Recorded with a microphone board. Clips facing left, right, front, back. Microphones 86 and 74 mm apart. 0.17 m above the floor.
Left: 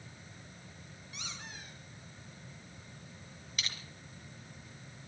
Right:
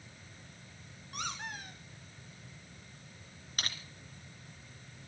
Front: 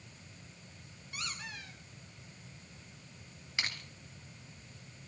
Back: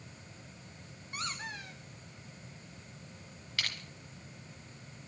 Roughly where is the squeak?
Behind right.